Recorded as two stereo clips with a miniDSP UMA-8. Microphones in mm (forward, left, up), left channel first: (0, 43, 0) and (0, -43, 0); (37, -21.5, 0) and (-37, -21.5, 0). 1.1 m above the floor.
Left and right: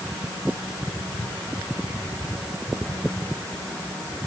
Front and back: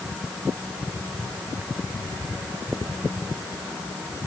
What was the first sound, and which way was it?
Only background noise.